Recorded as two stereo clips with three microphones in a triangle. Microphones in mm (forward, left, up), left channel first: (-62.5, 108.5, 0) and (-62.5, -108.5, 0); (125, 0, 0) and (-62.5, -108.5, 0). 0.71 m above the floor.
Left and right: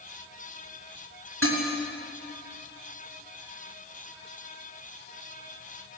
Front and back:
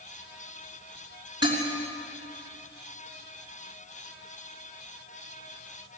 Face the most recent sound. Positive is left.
turn(degrees=-80)